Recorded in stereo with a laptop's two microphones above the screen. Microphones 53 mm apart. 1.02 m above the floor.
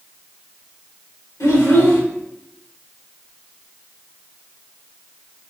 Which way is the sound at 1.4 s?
75° left (ahead or behind).